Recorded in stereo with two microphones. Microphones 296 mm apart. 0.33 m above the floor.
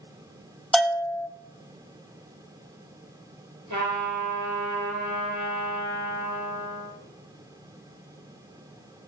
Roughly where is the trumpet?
Right.